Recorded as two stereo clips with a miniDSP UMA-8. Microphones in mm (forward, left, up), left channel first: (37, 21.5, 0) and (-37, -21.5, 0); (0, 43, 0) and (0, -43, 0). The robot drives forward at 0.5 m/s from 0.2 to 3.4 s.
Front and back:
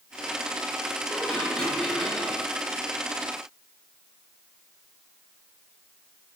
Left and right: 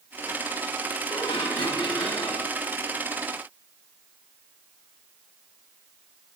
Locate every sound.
1.1 s dishes clattering: 105° left, 2.5 m; by 2.5 s 120° left, 3 m